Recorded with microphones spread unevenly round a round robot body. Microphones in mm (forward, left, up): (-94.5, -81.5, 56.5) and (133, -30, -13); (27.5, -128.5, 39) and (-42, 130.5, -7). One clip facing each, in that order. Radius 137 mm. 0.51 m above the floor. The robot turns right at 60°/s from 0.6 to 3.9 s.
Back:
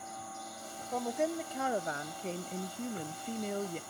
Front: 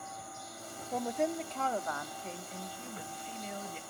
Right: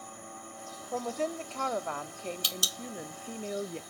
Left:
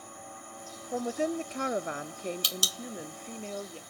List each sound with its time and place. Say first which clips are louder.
0.9 s a woman speaking: even, left 3 dB; 50° left, 0.7 m; by 3.8 s 135° right, 0.7 m